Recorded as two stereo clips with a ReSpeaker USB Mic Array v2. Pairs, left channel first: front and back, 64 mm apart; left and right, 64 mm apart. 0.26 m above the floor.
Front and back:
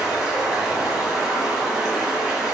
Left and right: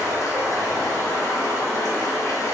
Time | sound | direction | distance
0.0 | running water | 100° left | 1.3 m